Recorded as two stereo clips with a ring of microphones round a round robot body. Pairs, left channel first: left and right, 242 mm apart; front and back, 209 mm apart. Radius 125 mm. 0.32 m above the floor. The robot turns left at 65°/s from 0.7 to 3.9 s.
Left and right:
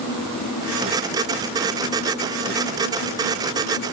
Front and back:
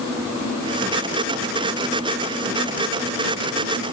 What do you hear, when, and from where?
Only background noise.